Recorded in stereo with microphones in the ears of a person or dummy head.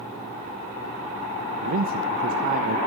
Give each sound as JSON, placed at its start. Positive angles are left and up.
{"t": 1.6, "sound": "a man speaking", "side_deg": -45, "distance_m": 0.6}